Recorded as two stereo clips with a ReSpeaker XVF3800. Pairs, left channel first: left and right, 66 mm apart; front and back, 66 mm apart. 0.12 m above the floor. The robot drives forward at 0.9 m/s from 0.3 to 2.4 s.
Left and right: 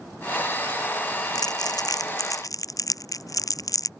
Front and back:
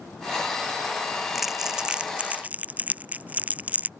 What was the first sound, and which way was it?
Crumpling, 90° left.